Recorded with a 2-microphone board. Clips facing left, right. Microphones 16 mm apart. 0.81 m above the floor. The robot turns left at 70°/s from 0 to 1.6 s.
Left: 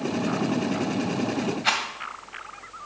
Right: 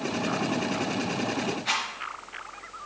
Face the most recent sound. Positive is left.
turn(degrees=50)  # may be behind; listen again after turning